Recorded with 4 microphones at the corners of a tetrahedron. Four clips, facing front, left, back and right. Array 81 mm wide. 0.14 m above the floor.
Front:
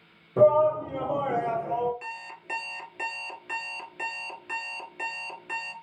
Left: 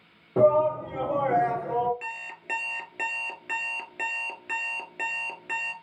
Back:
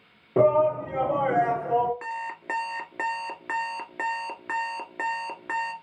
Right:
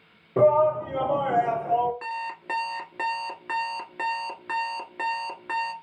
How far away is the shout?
About 3 m.